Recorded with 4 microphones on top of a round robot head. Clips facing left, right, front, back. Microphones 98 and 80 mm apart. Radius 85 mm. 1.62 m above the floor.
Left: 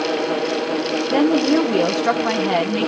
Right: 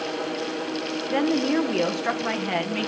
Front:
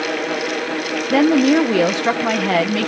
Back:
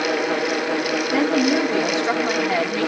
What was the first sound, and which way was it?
A woman speaking, 20° left.